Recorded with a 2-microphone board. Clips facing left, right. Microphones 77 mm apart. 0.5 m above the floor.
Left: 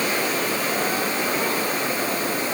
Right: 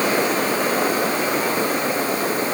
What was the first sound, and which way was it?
Only background noise.